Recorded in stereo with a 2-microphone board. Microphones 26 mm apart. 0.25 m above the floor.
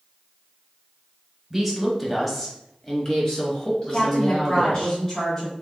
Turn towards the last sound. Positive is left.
turn(degrees=20)  # may be behind; listen again after turning